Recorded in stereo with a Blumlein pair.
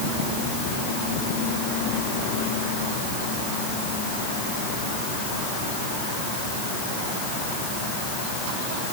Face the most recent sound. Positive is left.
No sound to turn to.